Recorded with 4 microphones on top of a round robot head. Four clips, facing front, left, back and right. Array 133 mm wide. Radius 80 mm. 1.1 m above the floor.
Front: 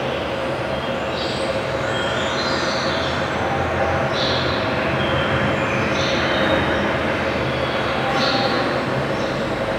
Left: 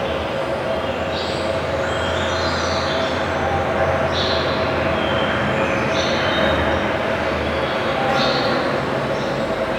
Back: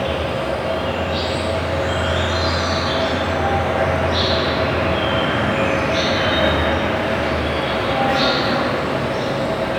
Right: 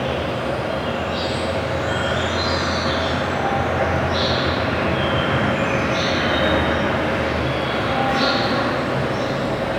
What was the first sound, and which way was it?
An insect, 160° left.